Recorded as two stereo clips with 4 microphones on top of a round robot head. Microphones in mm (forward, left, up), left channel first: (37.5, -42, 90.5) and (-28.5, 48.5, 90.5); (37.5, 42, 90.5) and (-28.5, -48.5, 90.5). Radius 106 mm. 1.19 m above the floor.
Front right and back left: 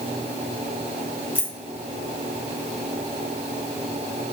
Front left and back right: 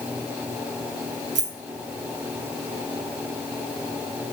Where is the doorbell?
I don't hear a doorbell.